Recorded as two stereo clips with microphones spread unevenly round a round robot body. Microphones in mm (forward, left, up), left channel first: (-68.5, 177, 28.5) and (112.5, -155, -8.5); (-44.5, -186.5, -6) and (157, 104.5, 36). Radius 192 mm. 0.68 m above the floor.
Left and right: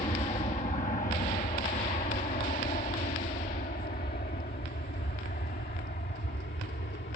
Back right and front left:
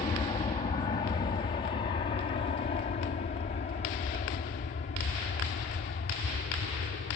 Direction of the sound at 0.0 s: Straight behind.